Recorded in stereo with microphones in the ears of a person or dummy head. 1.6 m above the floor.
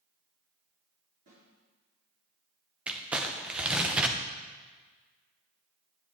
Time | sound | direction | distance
1.3 | a snare drum | 50° right (ahead or behind) | 4 m
2.9 | crumpling | 5° right (ahead or behind) | 0.7 m